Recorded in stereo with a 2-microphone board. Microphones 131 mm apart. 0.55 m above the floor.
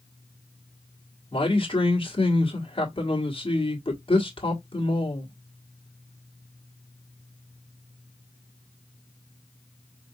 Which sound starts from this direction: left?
A man speaking, at 1.3 s.